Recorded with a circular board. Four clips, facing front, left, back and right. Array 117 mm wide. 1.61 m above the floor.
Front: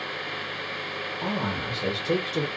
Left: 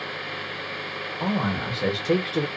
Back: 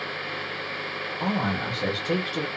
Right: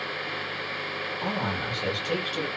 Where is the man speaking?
120° left, 1.1 m; by 2.5 s 60° left, 0.6 m.